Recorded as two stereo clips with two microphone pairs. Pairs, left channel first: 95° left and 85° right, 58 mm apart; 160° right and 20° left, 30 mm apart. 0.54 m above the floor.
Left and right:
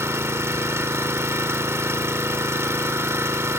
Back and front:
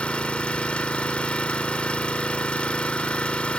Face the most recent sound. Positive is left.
turn(degrees=-115)